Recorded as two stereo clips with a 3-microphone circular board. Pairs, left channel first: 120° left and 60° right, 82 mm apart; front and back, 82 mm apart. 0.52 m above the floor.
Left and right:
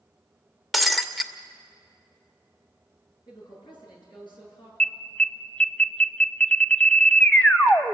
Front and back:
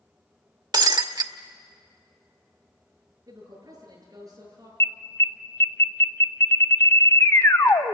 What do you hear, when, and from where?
0.7 s breaking glass: 150° right, 0.9 m
3.3 s a woman speaking: 130° left, 8 m
4.8 s an alarm: 45° left, 0.8 m